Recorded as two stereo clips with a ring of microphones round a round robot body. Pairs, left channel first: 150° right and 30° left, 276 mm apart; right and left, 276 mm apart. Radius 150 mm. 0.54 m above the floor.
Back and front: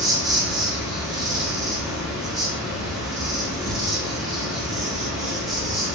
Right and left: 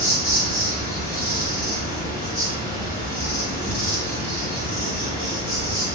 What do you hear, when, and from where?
0.0 s an insect: 60° right, 1.3 m